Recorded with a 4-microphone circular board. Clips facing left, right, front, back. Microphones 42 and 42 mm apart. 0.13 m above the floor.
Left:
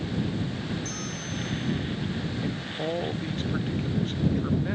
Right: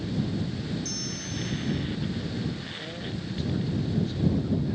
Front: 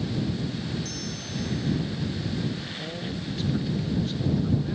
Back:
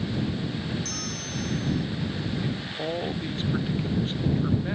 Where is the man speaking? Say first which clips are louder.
Left 4 dB, back 2 dB; 125° left.